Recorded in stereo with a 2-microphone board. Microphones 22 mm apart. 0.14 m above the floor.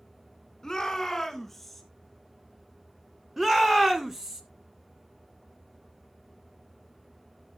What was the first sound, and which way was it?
A shout, 25° left (ahead or behind).